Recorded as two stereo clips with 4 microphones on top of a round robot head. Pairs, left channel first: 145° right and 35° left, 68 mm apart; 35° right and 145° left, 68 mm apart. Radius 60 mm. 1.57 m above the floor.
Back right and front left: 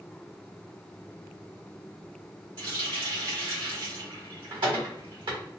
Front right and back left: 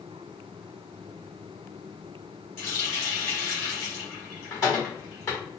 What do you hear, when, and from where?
2.6 s a running tap: 20° left, 1.4 m